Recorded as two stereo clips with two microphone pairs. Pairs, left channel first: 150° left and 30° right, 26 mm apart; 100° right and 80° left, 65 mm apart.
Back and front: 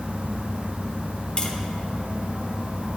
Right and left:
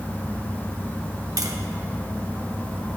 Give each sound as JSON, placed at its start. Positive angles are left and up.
{"t": 1.4, "sound": "tapping", "azimuth_deg": 110, "distance_m": 0.6}